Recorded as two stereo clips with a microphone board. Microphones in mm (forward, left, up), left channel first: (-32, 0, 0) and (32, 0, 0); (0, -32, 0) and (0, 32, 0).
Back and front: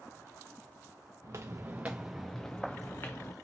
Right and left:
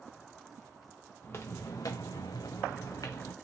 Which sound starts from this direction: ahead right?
Footsteps, at 1.2 s.